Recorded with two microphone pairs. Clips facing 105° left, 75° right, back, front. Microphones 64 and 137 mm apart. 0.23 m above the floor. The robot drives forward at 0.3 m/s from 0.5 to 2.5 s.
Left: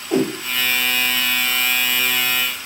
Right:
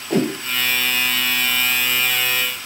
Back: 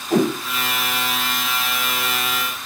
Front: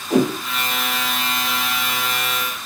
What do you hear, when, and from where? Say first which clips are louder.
0.1 s a whoosh: left 1 dB, front 1 dB; 75° right, 3.5 m